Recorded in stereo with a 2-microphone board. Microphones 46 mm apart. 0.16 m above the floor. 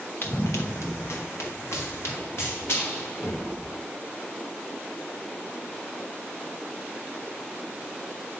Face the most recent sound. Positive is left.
turn(degrees=55)  # may be behind; listen again after turning